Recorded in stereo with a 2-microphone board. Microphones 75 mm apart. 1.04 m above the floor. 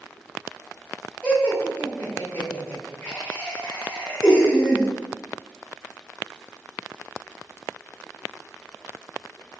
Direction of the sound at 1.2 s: 20° left (ahead or behind).